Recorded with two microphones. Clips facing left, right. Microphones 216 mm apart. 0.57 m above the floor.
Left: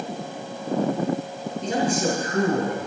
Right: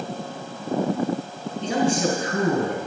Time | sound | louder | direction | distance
1.6 | a man speaking | right 2 dB | 75° right (ahead or behind) | 5.5 m